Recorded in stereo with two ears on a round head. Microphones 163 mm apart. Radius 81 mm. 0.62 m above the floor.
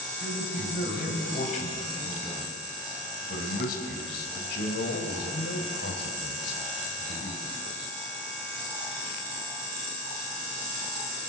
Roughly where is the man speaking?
Left.